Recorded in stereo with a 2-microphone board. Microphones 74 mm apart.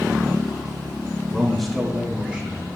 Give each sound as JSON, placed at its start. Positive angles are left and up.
{"t": 1.3, "sound": "a man speaking", "side_deg": 10, "distance_m": 1.5}